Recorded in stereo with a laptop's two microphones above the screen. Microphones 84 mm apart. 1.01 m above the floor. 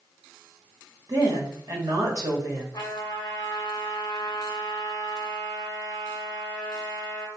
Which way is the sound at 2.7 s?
55° left (ahead or behind).